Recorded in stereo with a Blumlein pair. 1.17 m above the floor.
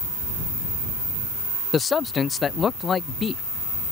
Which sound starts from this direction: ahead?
A man speaking, at 1.7 s.